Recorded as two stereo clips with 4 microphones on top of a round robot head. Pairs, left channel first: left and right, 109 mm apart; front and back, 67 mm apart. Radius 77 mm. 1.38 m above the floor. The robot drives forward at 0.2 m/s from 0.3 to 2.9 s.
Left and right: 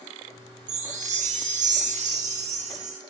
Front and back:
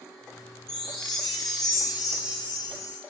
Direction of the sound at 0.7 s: 90° right.